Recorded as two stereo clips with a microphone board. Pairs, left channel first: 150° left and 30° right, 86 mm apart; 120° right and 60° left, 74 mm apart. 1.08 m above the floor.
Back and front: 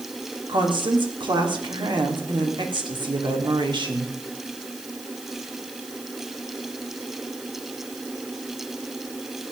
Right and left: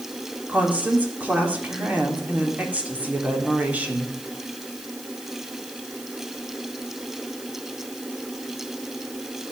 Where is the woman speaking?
10° right, 3 m.